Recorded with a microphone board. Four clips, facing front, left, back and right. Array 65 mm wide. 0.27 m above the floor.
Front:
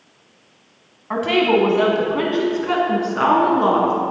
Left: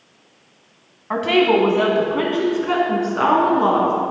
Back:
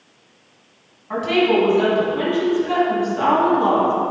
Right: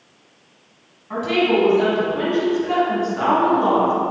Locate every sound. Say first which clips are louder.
1.1 s a woman speaking: left 3 dB, even; 60° left, 2.0 m; by 3.9 s 30° left, 3.5 m